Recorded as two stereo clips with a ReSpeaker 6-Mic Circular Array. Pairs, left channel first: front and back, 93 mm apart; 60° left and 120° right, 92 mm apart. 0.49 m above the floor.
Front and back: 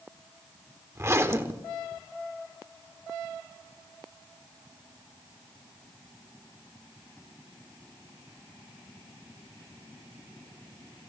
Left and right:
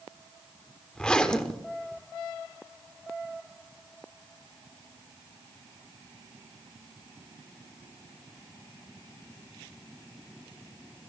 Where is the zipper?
135° left, 1.3 m.